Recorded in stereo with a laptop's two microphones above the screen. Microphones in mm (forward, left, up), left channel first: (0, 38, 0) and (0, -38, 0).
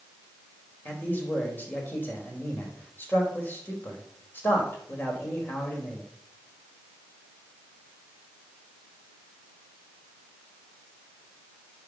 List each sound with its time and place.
0.8 s a man speaking: 25° left (ahead or behind), 4 m